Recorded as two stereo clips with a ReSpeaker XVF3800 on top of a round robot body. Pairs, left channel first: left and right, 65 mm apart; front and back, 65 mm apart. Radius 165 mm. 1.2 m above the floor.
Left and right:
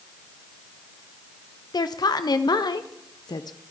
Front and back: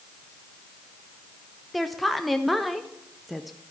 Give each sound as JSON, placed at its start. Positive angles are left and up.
{"t": 1.7, "sound": "a woman speaking", "azimuth_deg": 90, "distance_m": 0.7}